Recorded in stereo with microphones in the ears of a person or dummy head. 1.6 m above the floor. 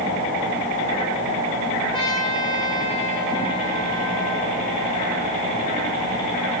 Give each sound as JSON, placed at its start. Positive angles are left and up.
{"t": 1.9, "sound": "a trumpet", "side_deg": 35, "distance_m": 8.5}